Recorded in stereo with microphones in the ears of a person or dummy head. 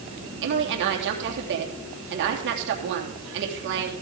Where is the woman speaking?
65° right (ahead or behind), 3 m.